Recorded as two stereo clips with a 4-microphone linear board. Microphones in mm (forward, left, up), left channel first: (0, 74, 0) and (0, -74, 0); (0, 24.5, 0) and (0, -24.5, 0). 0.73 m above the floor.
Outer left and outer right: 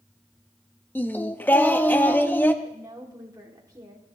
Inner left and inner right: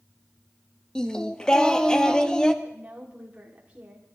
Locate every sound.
0.9 s singing: 15° left (ahead or behind), 0.7 m
2.6 s a woman speaking: 25° right (ahead or behind), 2 m